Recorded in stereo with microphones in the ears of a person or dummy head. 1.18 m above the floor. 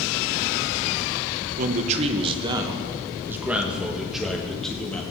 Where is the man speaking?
45° right (ahead or behind), 1.1 m; by 5.0 s 5° left (ahead or behind), 2 m.